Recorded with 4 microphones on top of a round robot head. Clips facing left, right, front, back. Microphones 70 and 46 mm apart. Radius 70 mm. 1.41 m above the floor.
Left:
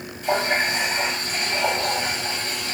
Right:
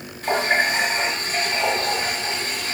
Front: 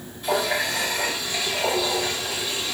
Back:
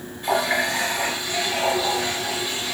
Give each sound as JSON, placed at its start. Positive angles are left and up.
{"t": 0.2, "sound": "a running tap", "azimuth_deg": -125, "distance_m": 2.5}